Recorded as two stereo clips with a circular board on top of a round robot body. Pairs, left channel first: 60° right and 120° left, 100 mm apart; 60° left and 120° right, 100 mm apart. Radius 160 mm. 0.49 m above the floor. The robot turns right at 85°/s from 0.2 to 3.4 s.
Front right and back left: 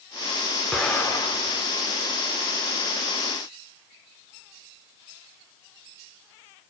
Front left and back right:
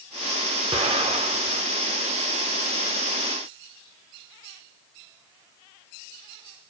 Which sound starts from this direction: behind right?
An explosion, at 0.7 s.